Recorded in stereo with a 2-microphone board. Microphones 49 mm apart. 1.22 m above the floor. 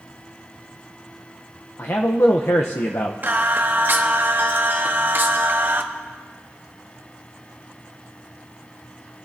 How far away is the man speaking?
About 0.7 m.